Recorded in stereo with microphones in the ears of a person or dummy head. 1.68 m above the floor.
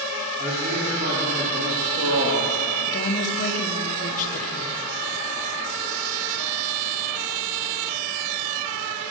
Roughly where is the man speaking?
Right.